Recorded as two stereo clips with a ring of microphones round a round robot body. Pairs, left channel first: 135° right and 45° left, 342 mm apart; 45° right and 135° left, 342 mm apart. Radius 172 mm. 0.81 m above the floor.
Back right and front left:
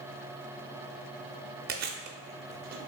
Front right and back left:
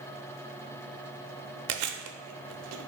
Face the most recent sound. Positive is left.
turn(degrees=100)